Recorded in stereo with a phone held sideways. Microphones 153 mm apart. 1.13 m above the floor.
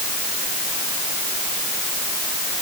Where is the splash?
No splash in this recording.